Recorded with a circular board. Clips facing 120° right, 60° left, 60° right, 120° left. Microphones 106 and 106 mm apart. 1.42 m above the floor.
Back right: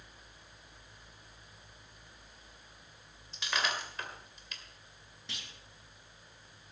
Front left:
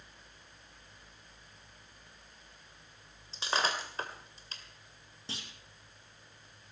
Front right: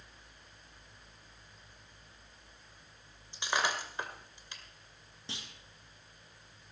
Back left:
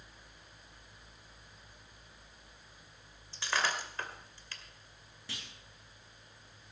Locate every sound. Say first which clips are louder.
3.3 s breaking glass: front left 3 dB, front right 1 dB; 10° left, 2 m
5.3 s a clunk: front left 4 dB, front right 2 dB; 5° left, 2 m